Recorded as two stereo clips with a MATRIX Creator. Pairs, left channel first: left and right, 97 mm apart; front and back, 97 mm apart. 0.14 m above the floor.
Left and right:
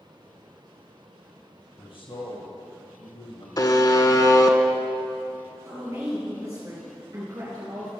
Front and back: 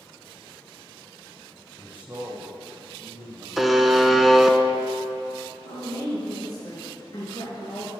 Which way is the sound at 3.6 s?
90° left.